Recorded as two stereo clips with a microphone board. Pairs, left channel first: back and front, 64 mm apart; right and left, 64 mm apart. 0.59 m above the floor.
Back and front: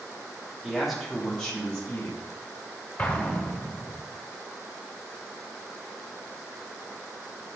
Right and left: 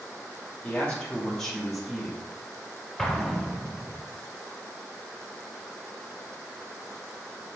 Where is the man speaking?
80° right, 1.1 m; by 2.2 s 160° left, 1.2 m.